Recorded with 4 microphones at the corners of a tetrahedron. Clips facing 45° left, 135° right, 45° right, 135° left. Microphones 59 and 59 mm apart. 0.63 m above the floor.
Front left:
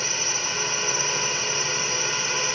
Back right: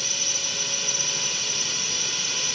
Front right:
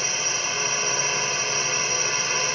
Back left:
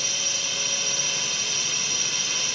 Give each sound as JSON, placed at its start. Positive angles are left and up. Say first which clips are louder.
{"t": 0.0, "sound": "a drone", "louder": "front left 5 dB, front right 4 dB", "azimuth_deg": 0}